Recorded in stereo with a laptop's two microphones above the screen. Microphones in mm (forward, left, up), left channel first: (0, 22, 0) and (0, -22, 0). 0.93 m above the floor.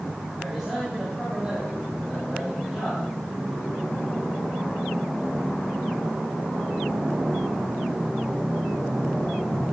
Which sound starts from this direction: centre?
A man speaking, at 0.4 s.